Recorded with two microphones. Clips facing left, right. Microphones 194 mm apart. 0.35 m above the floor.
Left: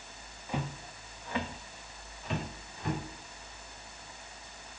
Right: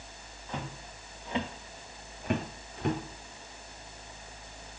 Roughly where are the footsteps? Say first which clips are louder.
Left 3 dB; centre.